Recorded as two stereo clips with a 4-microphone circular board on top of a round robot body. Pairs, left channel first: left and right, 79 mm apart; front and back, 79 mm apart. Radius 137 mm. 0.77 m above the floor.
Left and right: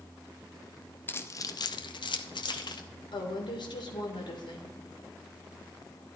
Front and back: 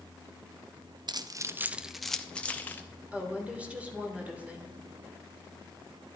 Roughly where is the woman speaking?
Left.